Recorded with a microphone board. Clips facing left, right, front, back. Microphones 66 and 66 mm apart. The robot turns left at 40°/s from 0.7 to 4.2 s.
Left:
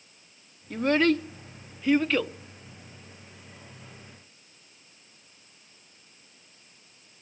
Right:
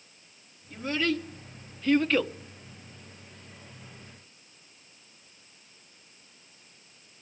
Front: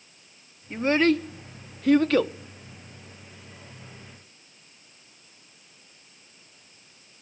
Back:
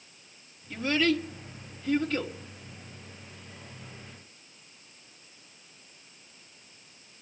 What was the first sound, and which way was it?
A child speaking, 60° left.